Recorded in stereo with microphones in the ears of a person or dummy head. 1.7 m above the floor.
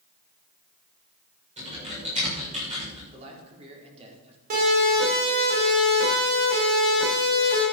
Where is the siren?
55° right (ahead or behind), 6.5 m; by 7.6 s 65° right (ahead or behind), 8.5 m.